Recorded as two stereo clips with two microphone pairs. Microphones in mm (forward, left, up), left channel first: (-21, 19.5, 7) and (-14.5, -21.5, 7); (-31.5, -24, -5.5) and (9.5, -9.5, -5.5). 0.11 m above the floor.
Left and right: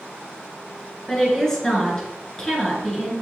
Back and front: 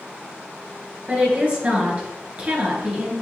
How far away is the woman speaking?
About 1.4 m.